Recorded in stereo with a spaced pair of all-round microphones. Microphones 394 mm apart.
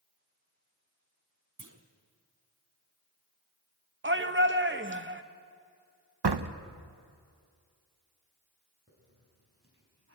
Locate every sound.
1.6 s a clunk: 50° right (ahead or behind), 1.5 m
4.0 s a shout: 30° right (ahead or behind), 1.1 m
6.2 s a door slam: 80° right, 0.8 m
8.9 s a hiss: 35° right (ahead or behind), 5 m